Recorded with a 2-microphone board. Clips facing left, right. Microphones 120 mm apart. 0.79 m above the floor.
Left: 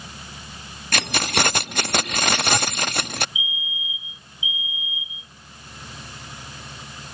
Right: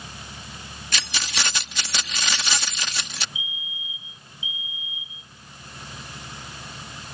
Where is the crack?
No crack in this recording.